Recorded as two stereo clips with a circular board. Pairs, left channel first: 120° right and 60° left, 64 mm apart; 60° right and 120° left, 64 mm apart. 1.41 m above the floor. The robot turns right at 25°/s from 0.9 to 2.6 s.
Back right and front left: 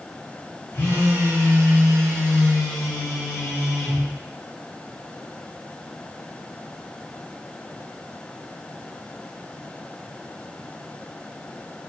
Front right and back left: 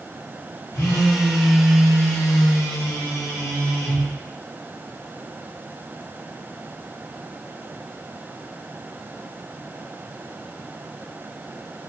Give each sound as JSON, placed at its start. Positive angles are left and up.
{"t": 0.7, "sound": "a phone buzzing", "azimuth_deg": -65, "distance_m": 1.0}